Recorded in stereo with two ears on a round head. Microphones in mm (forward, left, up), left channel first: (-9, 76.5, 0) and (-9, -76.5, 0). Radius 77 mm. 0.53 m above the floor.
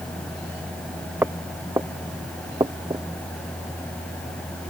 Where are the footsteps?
10° right (ahead or behind); by 3.0 s 20° right (ahead or behind).